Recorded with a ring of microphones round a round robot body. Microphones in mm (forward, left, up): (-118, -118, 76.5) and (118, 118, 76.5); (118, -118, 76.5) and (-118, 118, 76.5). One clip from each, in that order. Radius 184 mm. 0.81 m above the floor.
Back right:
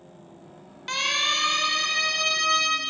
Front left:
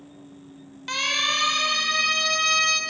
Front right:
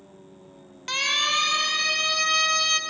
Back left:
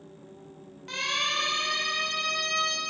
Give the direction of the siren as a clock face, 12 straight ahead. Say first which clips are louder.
Front left 1 dB, front right 5 dB; 2 o'clock.